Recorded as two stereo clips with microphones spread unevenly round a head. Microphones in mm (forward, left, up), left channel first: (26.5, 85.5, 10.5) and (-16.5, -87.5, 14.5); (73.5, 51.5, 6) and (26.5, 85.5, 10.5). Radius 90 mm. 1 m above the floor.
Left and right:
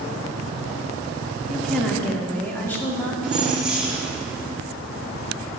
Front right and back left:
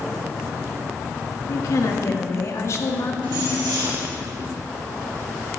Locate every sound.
1.5 s a woman speaking: 15° right, 1.5 m; by 3.1 s straight ahead, 2.5 m
3.2 s keys jangling: 170° left, 1.5 m